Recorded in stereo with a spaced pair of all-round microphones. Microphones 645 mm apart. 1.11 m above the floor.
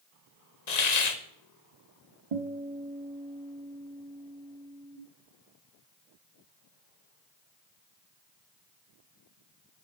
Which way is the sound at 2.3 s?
55° right (ahead or behind).